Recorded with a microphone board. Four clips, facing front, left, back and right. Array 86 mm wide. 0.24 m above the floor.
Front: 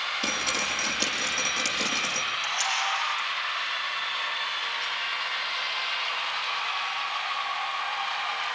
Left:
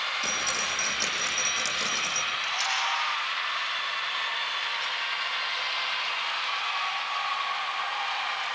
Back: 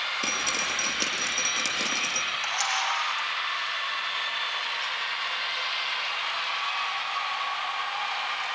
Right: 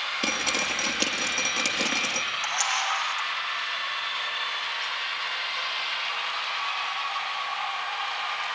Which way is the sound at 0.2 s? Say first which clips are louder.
Right 2 dB, front 2 dB; 95° right.